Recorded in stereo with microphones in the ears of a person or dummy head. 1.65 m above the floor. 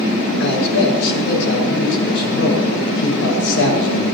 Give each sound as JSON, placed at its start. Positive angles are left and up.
{"t": 0.4, "sound": "a man speaking", "side_deg": 70, "distance_m": 6.0}